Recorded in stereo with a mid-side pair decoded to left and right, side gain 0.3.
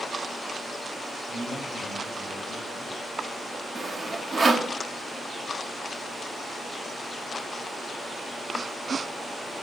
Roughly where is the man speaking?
Ahead right.